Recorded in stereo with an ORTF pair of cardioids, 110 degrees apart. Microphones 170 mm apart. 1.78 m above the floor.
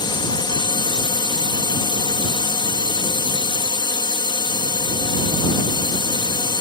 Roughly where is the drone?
Ahead left.